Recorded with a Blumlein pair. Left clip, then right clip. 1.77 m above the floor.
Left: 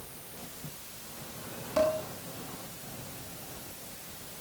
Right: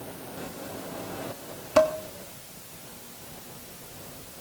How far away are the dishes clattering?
About 2.5 m.